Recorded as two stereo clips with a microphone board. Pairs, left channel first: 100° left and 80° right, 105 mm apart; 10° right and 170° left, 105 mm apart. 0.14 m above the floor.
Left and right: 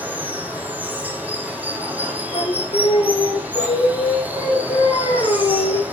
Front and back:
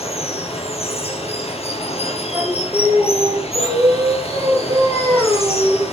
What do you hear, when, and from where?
0.0 s running water: 5° right, 2 m
2.3 s singing: 110° left, 4.5 m